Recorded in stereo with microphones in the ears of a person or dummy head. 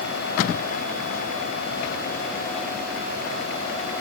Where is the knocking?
No knocking in this recording.